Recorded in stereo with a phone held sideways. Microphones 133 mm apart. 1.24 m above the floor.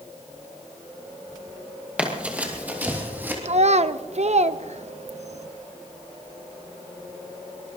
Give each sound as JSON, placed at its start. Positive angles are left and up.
{"t": 2.0, "sound": "running footsteps", "side_deg": -10, "distance_m": 2.0}
{"t": 3.5, "sound": "a child speaking", "side_deg": -55, "distance_m": 0.6}